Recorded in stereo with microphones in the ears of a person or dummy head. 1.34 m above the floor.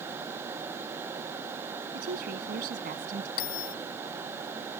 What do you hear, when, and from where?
1.9 s a woman speaking: 55° right (ahead or behind); by 3.3 s 50° right (ahead or behind)
3.4 s a bell: 55° left (ahead or behind)